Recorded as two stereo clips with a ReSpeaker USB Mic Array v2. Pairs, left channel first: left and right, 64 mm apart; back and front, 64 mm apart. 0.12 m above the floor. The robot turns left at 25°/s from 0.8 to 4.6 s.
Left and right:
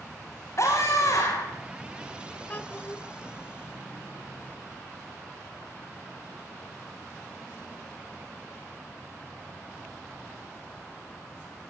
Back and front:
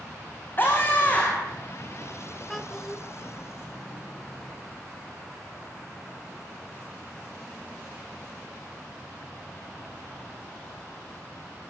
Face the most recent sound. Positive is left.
turn(degrees=50)